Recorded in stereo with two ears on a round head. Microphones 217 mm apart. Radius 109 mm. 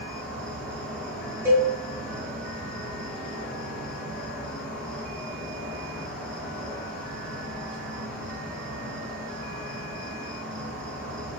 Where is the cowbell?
10° right (ahead or behind), 1.2 m.